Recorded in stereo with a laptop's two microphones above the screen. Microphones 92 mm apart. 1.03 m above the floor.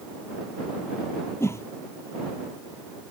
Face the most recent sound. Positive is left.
turn(degrees=30)  # may be behind; listen again after turning